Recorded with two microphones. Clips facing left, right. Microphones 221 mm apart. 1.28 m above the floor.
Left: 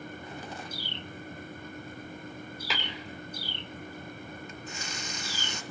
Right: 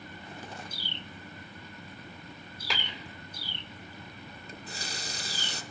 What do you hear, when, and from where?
2.7 s tapping: centre (ahead or behind), 5.5 m
4.5 s a running tap: 35° right (ahead or behind), 0.7 m